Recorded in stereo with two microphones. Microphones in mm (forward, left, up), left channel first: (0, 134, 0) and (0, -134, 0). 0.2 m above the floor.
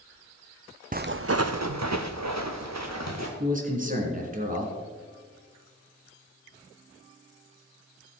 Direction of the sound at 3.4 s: 30° right (ahead or behind).